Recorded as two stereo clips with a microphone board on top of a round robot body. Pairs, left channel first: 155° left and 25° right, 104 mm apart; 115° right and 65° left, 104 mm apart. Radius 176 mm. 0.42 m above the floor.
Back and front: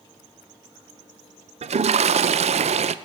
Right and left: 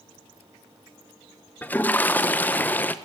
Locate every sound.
1.6 s a toilet flushing: 35° right, 0.6 m